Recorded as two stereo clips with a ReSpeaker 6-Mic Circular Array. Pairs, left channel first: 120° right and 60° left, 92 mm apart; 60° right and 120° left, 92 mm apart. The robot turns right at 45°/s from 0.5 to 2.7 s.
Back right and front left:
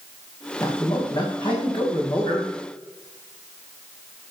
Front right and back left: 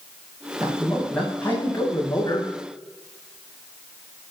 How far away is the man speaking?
About 6 m.